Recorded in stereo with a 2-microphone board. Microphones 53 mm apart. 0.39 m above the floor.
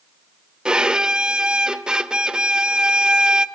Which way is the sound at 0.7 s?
15° right (ahead or behind).